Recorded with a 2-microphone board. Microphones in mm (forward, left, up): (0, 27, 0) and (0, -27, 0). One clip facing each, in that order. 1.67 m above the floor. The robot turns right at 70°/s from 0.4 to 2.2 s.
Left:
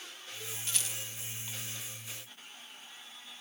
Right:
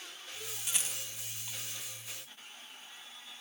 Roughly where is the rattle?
Centre.